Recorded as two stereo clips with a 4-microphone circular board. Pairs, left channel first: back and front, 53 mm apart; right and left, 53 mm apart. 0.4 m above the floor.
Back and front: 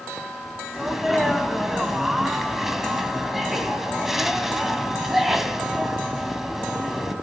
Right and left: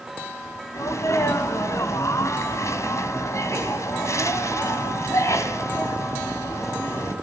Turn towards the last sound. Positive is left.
turn(degrees=-85)